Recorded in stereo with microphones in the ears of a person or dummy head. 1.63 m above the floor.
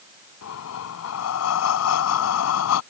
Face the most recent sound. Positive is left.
turn(degrees=75)  # may be behind; listen again after turning